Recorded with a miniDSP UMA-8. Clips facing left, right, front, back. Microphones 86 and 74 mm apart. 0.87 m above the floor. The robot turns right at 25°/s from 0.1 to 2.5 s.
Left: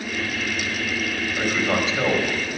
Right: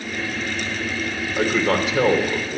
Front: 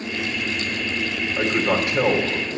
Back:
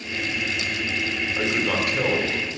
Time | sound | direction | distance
1.4 | a man speaking | 80° right | 3 m